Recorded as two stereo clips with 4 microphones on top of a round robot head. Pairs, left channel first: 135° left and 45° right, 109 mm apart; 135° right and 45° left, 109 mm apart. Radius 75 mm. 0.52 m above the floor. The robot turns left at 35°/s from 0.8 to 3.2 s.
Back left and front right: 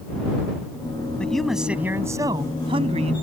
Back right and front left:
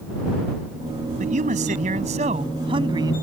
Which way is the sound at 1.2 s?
55° left.